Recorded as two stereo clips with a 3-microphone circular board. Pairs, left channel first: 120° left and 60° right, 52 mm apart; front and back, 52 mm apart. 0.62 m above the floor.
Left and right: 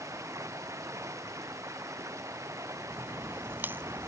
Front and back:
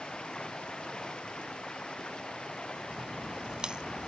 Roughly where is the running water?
Right.